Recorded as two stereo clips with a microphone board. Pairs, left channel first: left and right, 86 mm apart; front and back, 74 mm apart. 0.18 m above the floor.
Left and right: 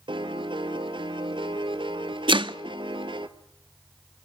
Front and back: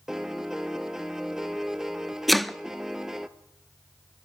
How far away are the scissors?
I don't hear scissors.